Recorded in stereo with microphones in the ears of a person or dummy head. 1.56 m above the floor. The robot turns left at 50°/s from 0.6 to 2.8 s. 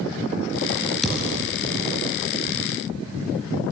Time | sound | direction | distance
1.0 | a thud | centre (ahead or behind) | 5.5 m